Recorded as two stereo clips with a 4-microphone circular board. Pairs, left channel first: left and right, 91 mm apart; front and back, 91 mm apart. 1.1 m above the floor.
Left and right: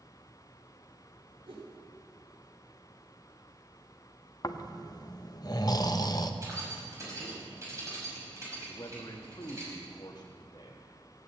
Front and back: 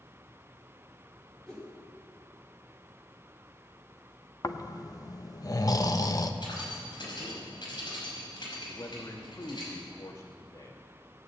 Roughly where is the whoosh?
Right.